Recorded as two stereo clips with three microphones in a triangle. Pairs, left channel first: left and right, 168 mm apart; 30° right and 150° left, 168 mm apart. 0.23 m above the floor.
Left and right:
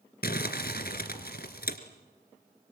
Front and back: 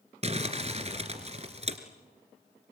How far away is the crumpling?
About 2 m.